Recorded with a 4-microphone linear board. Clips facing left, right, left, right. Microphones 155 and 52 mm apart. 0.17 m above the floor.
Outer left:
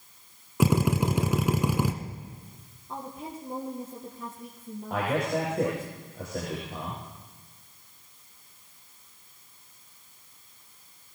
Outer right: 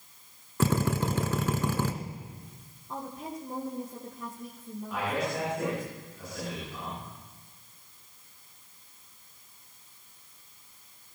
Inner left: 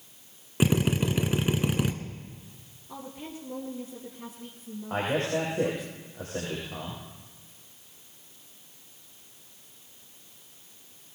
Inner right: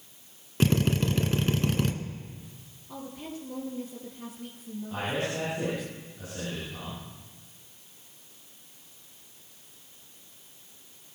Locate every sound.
0.6 s a drill: 15° left (ahead or behind), 1.1 m
2.9 s a woman speaking: centre (ahead or behind), 2.5 m
4.9 s a man speaking: 55° left (ahead or behind), 8 m